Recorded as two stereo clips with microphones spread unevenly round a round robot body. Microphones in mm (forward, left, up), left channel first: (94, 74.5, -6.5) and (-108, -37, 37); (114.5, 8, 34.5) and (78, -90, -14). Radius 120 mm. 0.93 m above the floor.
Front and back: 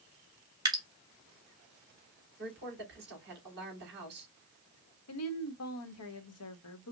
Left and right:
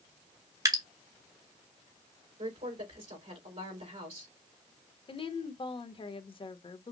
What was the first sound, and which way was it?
Dripping, 75° right.